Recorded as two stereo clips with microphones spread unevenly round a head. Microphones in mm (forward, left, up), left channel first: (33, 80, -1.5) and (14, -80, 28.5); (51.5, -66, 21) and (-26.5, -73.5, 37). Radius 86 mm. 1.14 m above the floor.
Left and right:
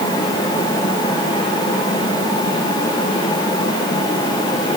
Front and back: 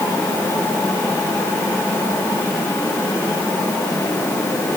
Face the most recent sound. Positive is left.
No sound to turn to.